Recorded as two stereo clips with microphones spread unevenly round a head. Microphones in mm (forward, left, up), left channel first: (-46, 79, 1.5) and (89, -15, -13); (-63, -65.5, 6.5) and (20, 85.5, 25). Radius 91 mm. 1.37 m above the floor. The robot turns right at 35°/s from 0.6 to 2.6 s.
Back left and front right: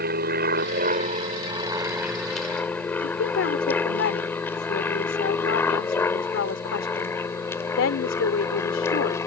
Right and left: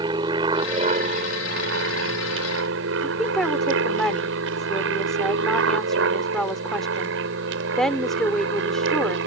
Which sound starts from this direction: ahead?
An aircraft, at 0.0 s.